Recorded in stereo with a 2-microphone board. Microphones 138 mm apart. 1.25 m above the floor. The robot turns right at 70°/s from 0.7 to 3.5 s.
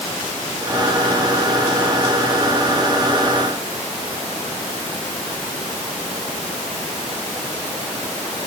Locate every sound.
Only background noise.